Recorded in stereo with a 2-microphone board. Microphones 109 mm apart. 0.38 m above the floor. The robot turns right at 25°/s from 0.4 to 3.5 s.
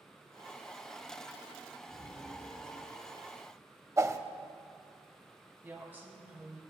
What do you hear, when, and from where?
1.9 s an explosion: 60° left, 1.9 m; by 3.3 s 95° left, 1.9 m
4.0 s a whoosh: 30° right (ahead or behind), 0.6 m
5.6 s a woman speaking: 20° right (ahead or behind), 3 m